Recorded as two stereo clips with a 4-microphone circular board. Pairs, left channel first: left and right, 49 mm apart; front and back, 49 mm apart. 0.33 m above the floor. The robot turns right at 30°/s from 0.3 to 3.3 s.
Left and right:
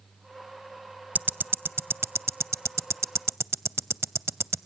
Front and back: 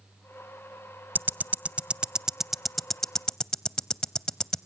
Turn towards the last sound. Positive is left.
turn(degrees=-70)